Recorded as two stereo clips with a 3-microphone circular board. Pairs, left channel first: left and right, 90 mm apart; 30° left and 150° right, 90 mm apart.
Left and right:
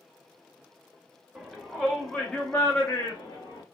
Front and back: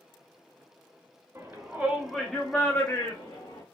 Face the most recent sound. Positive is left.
turn(degrees=35)